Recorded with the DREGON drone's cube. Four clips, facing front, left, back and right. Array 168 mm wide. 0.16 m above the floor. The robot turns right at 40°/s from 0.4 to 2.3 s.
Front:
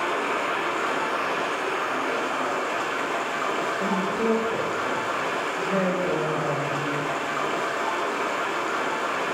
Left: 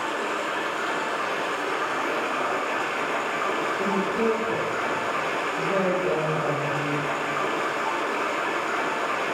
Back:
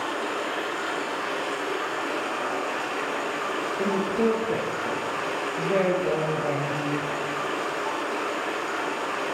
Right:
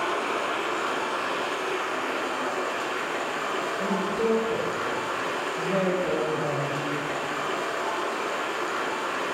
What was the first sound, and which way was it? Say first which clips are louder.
Running water: right 1 dB, front 3 dB; 5° right.